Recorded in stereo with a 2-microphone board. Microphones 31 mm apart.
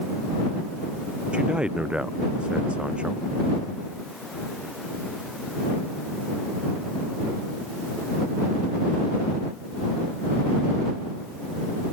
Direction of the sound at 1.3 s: 35° right (ahead or behind).